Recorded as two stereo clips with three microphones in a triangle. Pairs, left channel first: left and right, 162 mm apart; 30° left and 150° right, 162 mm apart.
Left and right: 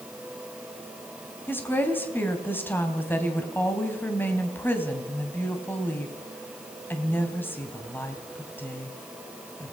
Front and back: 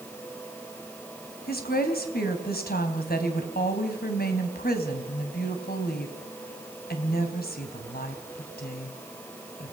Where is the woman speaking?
15° left, 3 m.